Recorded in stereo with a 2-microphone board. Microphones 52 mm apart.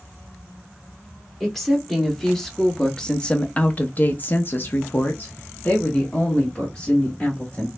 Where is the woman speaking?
Centre (ahead or behind), 1.6 m; by 7.7 s 25° left (ahead or behind), 2.0 m.